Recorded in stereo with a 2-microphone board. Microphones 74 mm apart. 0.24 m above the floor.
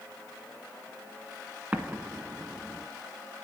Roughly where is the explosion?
Right.